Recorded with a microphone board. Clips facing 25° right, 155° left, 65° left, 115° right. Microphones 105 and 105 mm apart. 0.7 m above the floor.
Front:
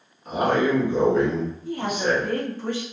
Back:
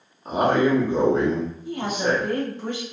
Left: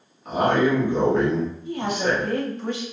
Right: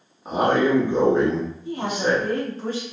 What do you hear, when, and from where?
0.2 s a man speaking: 165° right, 0.9 m
1.6 s a woman speaking: 145° right, 1.3 m